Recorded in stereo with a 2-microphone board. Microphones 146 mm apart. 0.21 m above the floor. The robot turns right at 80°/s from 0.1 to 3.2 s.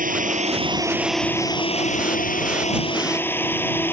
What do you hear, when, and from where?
0.0 s a drone: 85° right; by 3.9 s 165° left